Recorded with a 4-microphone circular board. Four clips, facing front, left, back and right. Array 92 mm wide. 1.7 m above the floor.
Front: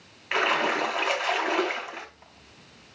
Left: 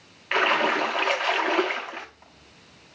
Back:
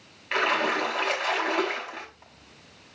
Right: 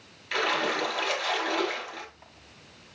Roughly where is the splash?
Left.